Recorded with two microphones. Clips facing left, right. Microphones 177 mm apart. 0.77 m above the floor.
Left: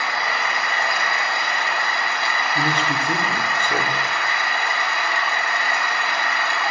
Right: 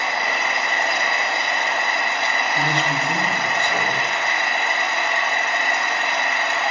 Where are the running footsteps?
No running footsteps in this recording.